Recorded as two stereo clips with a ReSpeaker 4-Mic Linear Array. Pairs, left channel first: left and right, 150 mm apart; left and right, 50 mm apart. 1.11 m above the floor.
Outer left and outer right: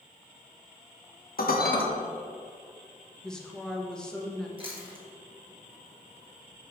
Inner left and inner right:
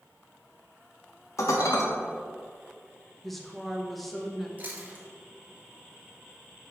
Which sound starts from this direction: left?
Dishes clattering, at 1.4 s.